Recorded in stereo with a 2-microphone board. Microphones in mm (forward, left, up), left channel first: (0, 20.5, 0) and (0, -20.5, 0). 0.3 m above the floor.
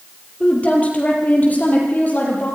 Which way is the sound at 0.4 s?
35° left (ahead or behind).